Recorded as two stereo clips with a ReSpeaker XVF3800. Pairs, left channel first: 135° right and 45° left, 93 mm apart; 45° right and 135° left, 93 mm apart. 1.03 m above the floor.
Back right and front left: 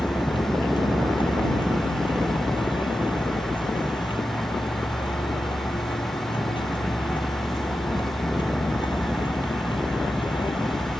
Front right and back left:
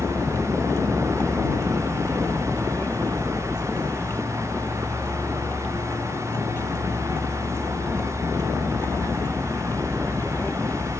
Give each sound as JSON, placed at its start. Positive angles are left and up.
{"t": 0.0, "sound": "a vehicle", "azimuth_deg": -110}